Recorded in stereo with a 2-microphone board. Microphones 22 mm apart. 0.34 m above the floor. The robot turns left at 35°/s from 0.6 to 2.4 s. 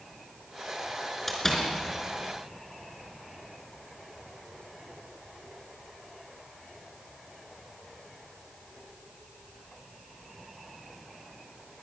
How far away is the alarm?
No alarm in this recording.